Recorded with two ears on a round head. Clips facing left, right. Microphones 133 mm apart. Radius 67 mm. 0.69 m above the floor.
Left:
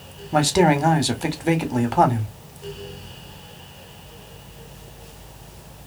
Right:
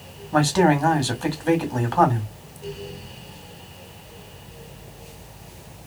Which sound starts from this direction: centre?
A man speaking, at 0.3 s.